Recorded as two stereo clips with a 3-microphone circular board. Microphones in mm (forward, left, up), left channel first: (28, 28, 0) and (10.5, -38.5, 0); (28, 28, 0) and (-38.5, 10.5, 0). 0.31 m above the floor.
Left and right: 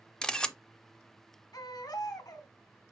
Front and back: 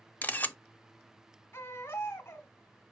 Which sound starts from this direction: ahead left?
A baby crying, at 1.5 s.